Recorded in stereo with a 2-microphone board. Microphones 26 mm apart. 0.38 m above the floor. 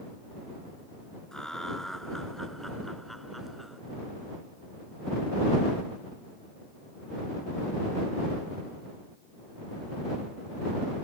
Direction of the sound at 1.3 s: 25° left (ahead or behind).